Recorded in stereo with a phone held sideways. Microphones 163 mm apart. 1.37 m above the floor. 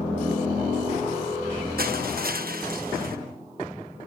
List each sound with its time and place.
1.8 s crushing: 75° right (ahead or behind)